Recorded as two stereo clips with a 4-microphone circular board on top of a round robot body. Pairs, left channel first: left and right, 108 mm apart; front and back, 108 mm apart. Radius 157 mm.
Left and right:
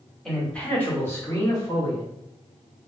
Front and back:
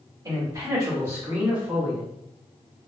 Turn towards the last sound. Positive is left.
turn(degrees=105)